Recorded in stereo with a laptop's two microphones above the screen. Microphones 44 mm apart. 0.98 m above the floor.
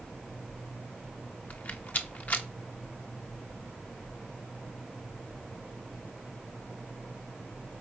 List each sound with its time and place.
1.5 s a rattle: 45° left (ahead or behind), 1.1 m